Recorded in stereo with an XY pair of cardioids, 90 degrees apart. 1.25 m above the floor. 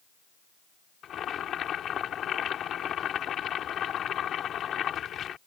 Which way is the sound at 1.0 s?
70° left.